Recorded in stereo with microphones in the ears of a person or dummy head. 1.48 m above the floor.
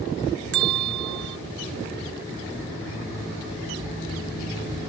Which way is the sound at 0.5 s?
80° right.